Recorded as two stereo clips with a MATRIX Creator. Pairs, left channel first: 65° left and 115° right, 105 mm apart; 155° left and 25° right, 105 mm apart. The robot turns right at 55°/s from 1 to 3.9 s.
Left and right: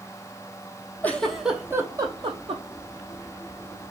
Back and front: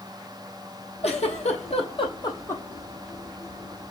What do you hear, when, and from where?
1.0 s a giggle: 140° left, 0.7 m; by 2.6 s 130° right, 0.7 m